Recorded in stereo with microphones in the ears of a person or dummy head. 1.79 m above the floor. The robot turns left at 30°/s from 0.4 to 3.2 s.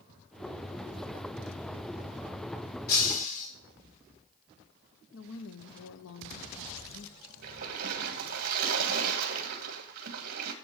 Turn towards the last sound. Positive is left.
turn(degrees=-50)  # may be behind; listen again after turning